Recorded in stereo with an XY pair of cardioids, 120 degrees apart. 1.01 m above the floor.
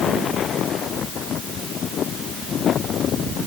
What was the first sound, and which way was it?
Only background noise.